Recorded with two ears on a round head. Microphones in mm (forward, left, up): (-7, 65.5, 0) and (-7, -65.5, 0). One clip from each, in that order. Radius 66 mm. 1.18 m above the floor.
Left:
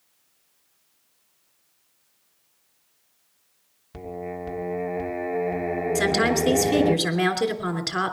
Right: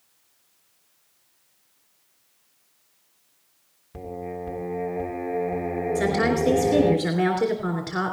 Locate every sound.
3.9 s singing: 80° left, 1.2 m
6.0 s a woman speaking: 85° left, 3 m